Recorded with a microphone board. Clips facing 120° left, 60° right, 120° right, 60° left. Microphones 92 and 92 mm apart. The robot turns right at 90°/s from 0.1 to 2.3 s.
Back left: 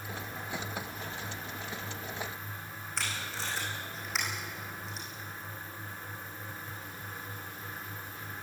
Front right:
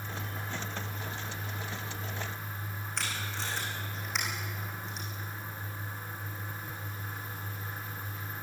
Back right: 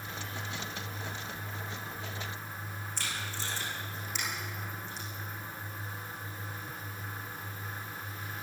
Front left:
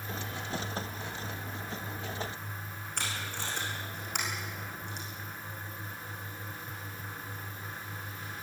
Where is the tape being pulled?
30° left, 6.5 m.